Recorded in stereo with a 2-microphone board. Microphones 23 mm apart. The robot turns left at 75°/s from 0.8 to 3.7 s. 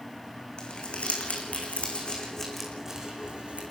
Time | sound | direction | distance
0.6 | crumpling | 45° left (ahead or behind) | 5.5 m